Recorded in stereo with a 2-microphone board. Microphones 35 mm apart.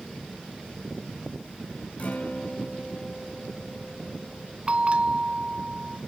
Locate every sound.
2.0 s a guitar: 45° left (ahead or behind), 2 m
4.7 s a bell: 35° right (ahead or behind), 0.6 m